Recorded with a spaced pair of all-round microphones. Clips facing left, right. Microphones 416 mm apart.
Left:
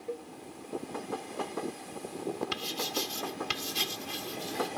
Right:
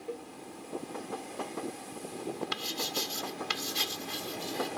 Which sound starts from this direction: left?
Writing, at 2.5 s.